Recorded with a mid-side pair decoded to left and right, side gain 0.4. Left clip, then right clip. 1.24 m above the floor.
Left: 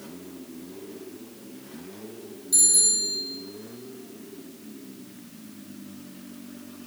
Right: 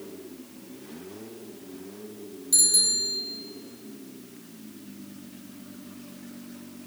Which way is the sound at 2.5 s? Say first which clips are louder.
Even; 35° right.